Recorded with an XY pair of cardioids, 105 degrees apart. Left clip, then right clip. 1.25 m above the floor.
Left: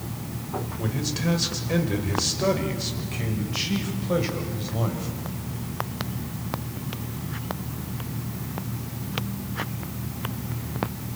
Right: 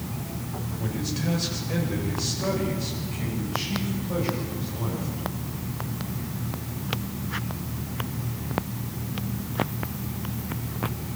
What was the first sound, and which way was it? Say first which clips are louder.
A man speaking: even; 40° left.